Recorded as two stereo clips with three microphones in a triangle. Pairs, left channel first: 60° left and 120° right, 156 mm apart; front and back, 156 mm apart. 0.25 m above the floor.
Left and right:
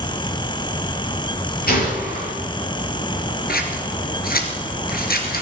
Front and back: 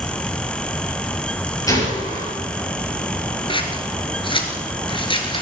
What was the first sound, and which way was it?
A gunshot, 65° left.